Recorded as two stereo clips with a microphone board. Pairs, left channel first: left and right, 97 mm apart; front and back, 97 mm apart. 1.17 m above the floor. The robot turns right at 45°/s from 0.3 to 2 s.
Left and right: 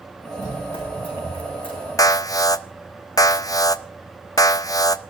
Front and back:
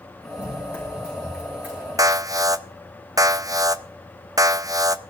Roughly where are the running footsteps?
Ahead left.